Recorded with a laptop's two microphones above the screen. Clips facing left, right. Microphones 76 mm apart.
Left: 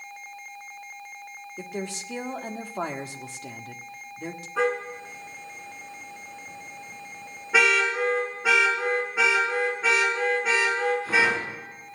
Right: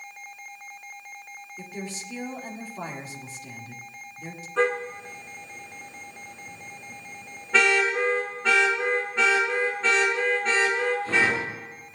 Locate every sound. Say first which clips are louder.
1.6 s a woman speaking: left 4 dB; 65° left (ahead or behind), 1.6 m
4.6 s a car horn: right 1 dB; 10° left (ahead or behind), 5 m